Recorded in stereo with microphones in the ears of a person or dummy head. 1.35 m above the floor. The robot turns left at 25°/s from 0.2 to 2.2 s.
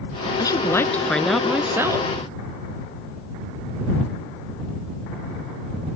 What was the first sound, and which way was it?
A woman speaking, 20° left.